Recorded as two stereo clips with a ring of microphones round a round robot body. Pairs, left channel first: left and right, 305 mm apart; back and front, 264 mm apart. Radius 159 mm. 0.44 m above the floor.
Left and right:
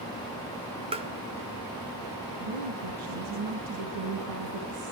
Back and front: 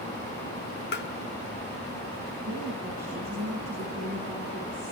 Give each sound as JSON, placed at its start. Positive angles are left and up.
{"t": 0.9, "sound": "tapping", "azimuth_deg": -155, "distance_m": 1.6}
{"t": 2.4, "sound": "a woman speaking", "azimuth_deg": -80, "distance_m": 5.5}